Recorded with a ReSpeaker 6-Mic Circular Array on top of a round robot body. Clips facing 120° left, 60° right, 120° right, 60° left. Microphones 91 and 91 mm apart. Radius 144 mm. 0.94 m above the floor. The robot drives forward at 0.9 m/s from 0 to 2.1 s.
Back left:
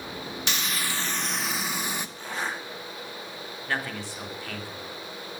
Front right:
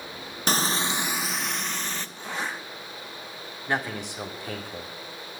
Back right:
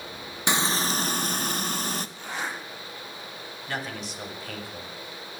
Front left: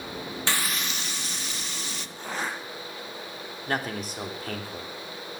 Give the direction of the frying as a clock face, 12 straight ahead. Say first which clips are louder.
Front right 7 dB, back right 6 dB; 2 o'clock.